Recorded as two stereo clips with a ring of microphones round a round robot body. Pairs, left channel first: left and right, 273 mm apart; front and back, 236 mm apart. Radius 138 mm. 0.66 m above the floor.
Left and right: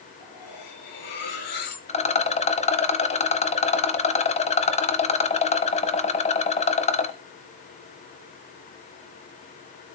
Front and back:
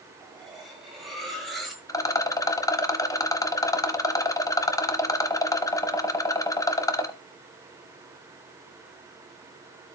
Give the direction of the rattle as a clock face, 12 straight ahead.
10 o'clock.